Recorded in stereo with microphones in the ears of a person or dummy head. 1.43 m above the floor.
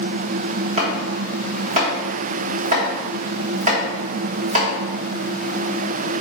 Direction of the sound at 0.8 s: 40° right (ahead or behind).